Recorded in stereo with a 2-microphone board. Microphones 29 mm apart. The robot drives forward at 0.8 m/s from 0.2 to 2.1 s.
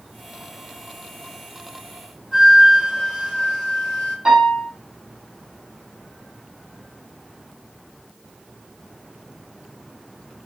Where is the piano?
25° right (ahead or behind), 3.5 m.